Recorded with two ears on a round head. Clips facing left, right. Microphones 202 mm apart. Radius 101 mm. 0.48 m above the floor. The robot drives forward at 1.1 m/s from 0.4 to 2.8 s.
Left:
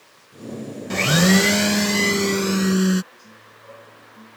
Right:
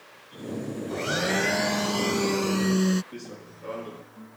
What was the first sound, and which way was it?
A blender, 85° left.